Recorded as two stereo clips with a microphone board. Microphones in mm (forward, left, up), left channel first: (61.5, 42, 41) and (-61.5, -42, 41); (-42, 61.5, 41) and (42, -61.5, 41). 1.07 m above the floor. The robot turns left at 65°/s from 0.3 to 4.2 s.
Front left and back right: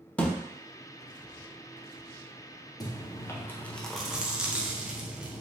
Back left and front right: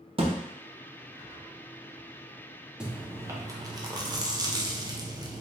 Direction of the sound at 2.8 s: 25° left.